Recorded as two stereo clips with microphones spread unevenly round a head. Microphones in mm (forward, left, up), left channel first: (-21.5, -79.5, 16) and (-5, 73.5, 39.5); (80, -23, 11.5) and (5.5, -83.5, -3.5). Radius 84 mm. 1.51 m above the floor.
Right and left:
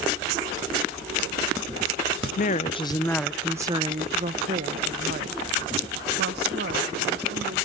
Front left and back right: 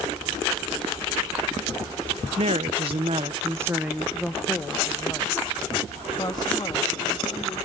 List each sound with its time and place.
2.4 s a woman speaking: 130° right, 0.7 m; by 7.5 s 100° left, 2.5 m